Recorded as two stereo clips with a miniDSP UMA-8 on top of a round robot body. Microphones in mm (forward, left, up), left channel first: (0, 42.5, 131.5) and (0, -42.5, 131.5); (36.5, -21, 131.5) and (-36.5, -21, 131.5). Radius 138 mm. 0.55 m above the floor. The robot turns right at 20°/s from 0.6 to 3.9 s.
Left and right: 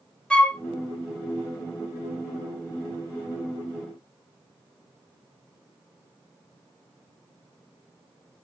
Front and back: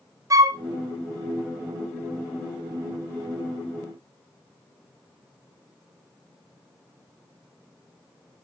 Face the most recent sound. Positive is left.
turn(degrees=-130)